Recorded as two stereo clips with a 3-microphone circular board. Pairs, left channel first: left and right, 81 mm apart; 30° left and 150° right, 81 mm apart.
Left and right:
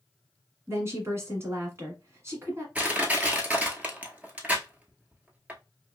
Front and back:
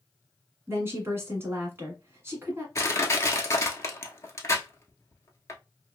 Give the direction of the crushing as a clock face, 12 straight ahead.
1 o'clock.